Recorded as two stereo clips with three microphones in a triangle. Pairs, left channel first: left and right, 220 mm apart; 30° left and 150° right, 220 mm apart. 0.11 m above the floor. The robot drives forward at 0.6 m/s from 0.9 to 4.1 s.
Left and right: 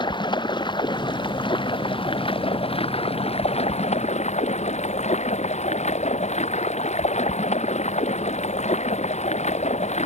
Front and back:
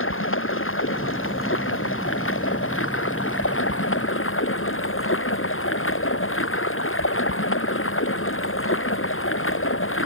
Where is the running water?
20° left; by 10.1 s 35° left.